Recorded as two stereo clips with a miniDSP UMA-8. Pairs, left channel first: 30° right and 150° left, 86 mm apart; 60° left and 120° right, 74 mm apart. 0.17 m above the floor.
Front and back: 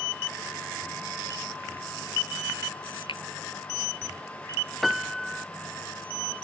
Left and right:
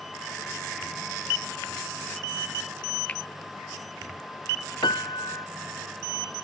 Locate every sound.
3.1 s a finger snap: 15° right
4.8 s a piano: 60° left